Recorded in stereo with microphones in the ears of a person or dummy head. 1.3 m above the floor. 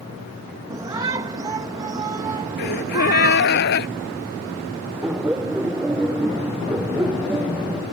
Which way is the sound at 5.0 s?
5° right (ahead or behind).